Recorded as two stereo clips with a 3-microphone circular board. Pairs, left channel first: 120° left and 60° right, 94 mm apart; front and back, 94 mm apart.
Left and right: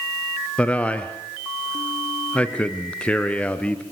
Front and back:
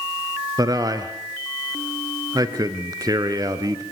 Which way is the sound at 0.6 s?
170° right.